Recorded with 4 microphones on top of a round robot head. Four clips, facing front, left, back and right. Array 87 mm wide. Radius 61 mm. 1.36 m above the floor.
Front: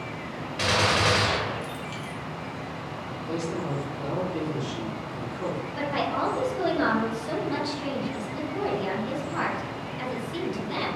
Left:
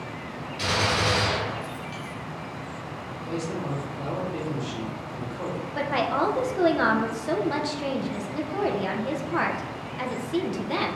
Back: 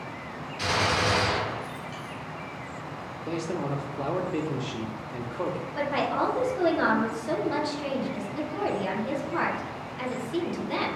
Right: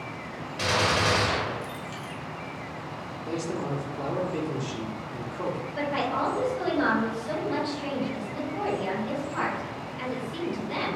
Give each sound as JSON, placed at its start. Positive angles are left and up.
{"t": 0.6, "sound": "a gunshot", "azimuth_deg": -10, "distance_m": 0.8}
{"t": 3.3, "sound": "a man speaking", "azimuth_deg": -165, "distance_m": 0.8}
{"t": 5.8, "sound": "a woman speaking", "azimuth_deg": 90, "distance_m": 0.8}